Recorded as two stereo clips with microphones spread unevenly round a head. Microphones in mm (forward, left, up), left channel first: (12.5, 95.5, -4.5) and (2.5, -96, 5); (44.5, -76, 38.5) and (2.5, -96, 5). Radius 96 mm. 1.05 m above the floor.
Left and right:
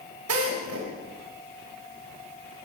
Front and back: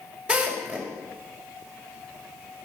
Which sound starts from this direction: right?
A drill, at 0.3 s.